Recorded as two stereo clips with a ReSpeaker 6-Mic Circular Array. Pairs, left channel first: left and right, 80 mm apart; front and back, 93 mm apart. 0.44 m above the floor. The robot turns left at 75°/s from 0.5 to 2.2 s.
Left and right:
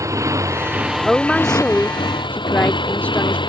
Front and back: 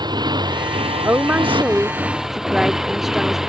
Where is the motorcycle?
140° right; by 3.5 s 95° left.